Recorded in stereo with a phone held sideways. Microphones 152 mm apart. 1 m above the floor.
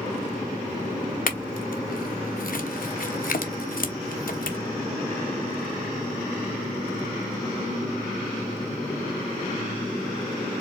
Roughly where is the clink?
Left.